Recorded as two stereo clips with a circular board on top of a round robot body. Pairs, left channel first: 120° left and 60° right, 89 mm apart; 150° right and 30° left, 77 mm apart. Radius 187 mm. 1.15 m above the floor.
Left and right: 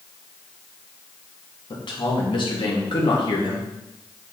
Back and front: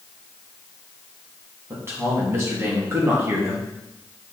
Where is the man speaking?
90° left, 3 m.